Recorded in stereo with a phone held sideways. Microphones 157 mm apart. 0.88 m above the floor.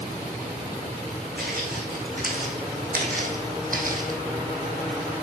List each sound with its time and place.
1.4 s footsteps: 75° right (ahead or behind), 3.5 m; by 4.2 s 60° right (ahead or behind), 1.8 m